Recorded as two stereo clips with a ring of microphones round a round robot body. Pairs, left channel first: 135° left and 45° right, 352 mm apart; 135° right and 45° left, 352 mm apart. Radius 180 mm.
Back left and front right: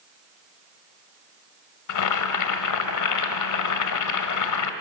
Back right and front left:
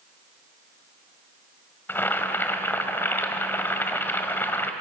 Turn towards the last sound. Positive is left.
turn(degrees=140)